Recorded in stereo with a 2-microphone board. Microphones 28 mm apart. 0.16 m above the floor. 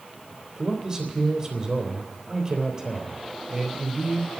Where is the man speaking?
25° right (ahead or behind), 3.5 m.